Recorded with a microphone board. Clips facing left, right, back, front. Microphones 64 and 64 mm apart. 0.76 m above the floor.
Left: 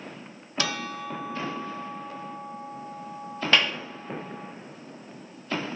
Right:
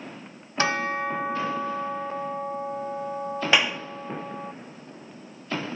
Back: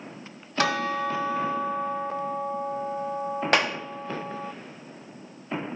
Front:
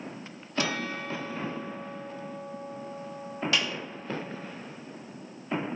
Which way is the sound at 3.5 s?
165° right.